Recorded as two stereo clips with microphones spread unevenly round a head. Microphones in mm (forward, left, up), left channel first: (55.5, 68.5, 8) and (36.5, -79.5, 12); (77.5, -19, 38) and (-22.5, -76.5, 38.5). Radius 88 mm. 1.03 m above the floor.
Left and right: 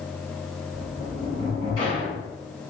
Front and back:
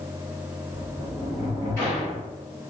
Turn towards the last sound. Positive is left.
turn(degrees=145)